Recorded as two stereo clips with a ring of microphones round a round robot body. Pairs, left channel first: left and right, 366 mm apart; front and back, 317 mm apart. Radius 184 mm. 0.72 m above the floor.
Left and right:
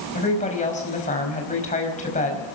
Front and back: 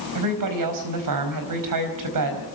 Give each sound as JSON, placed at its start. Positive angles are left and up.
{"t": 0.1, "sound": "a woman speaking", "azimuth_deg": 160, "distance_m": 4.5}